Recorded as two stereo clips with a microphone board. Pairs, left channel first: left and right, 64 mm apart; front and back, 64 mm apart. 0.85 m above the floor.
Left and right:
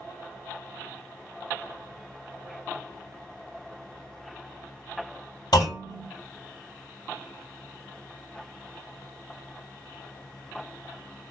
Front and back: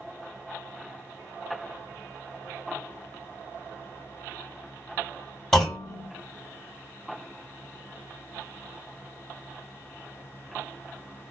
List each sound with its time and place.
5.5 s a clunk: 85° left, 2.5 m